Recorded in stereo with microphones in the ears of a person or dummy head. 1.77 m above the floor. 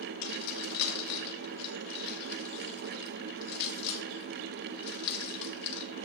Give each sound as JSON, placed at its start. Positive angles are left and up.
{"t": 0.2, "sound": "keys jangling", "side_deg": 60, "distance_m": 2.0}